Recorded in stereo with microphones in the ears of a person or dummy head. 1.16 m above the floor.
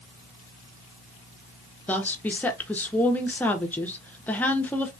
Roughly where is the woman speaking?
Centre.